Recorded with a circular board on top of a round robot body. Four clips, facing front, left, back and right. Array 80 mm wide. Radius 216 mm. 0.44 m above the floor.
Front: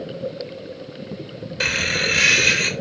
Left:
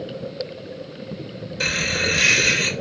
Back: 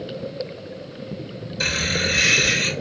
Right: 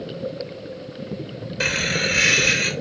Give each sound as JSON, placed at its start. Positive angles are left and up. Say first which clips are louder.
{"t": 1.6, "sound": "laughter", "louder": "right 1 dB, front 1 dB", "azimuth_deg": -20, "distance_m": 1.8}